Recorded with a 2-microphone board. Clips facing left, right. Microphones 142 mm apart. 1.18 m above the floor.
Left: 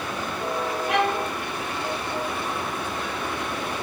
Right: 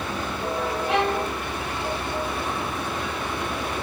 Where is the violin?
30° right (ahead or behind), 1.8 m.